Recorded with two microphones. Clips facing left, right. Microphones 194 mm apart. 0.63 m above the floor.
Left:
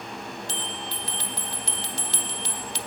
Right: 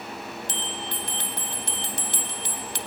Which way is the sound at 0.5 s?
50° right (ahead or behind).